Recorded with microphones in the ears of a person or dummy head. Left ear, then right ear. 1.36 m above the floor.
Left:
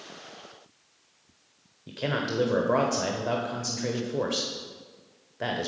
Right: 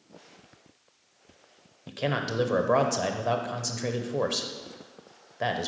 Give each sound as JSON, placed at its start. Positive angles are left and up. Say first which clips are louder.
{"t": 1.9, "sound": "a man speaking", "louder": "even", "side_deg": -25, "distance_m": 0.9}